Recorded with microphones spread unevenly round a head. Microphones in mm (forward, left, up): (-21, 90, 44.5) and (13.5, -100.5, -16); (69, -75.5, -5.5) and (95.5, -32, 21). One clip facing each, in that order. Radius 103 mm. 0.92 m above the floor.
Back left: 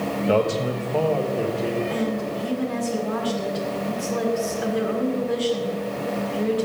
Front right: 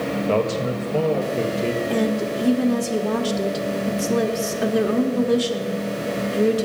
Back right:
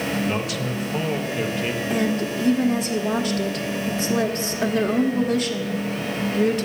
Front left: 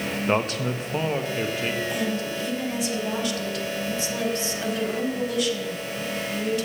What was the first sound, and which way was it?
A man speaking, 5° left.